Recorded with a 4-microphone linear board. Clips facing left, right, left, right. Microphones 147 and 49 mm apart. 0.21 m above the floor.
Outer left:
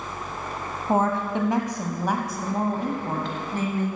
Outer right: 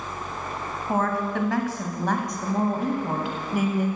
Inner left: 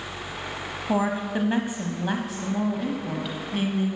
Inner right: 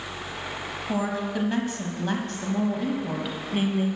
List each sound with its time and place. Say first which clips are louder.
0.9 s a woman speaking: outer left 2 dB, inner left 3 dB; 30° left (ahead or behind), 1.2 m; by 3.9 s 15° right (ahead or behind), 1.5 m